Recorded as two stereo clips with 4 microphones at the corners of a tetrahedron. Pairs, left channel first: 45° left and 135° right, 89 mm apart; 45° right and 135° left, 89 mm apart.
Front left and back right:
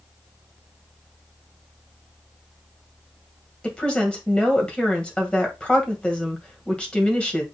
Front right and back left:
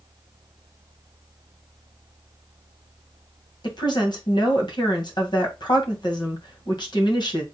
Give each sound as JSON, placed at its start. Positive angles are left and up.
{"t": 3.6, "sound": "a woman speaking", "azimuth_deg": -30, "distance_m": 2.0}